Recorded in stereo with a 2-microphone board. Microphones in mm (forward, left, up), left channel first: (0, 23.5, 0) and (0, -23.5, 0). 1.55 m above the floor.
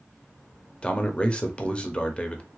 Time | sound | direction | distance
0.8 | a man speaking | 25° left (ahead or behind) | 0.6 m